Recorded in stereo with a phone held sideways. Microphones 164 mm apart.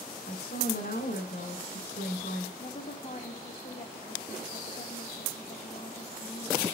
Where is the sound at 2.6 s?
60° left (ahead or behind), 1.8 m.